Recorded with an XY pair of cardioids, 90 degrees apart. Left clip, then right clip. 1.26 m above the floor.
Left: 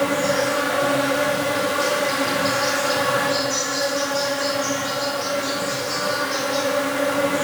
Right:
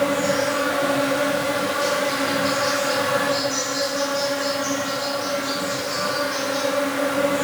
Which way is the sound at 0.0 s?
25° left.